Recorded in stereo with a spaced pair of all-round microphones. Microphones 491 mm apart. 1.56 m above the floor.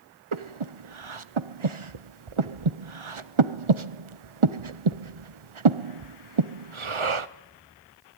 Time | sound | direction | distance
0.3 | breathing | 75° right (ahead or behind) | 0.9 m